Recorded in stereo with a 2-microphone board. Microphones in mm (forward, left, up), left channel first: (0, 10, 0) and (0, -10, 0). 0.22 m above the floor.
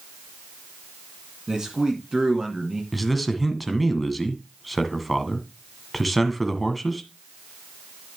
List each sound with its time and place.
1.5 s a man speaking: 40° right (ahead or behind), 2.5 m
2.9 s a man speaking: centre (ahead or behind), 1.7 m